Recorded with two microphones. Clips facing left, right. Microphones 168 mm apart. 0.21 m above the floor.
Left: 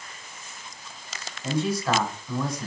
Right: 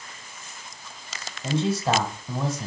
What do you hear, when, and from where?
1.4 s a man speaking: 25° right (ahead or behind), 1.6 m